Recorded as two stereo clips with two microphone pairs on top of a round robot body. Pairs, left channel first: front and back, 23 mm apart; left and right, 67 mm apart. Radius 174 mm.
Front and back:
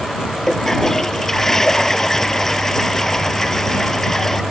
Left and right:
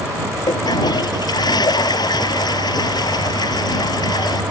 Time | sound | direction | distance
0.5 | a toilet flushing | 75° left | ?